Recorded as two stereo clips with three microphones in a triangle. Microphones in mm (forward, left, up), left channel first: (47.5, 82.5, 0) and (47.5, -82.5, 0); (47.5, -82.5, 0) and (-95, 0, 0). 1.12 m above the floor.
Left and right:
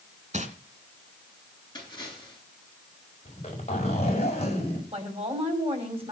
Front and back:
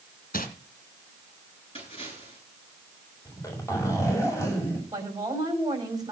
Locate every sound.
0.3 s crumpling: 50° right, 2.5 m
1.8 s a splash: 25° left, 9.5 m
3.2 s a zipper: 40° left, 6 m
4.9 s a woman speaking: 140° right, 5.5 m